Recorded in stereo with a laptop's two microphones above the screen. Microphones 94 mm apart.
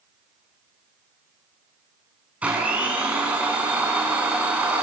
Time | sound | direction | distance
2.4 | a blender | 15° right (ahead or behind) | 4.5 m